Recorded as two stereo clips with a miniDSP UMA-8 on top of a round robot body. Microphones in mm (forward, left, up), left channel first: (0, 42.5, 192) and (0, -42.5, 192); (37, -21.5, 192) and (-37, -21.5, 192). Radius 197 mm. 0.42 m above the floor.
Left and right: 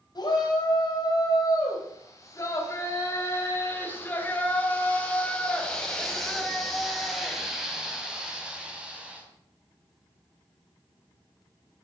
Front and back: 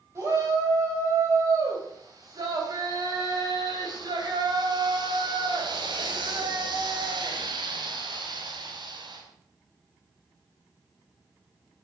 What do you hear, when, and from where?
0.1 s a shout: 130° left, 4.5 m; by 9.2 s 165° right, 5.5 m